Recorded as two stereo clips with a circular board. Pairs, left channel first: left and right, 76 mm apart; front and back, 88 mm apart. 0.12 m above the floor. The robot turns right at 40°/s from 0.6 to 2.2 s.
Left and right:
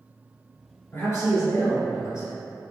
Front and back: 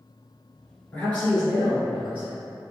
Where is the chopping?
I don't hear chopping.